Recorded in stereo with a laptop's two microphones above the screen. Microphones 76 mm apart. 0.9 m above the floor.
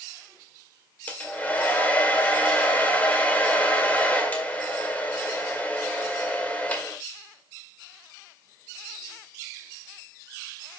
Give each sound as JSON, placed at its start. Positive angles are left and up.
{"t": 1.1, "sound": "a hair dryer", "side_deg": 20, "distance_m": 1.9}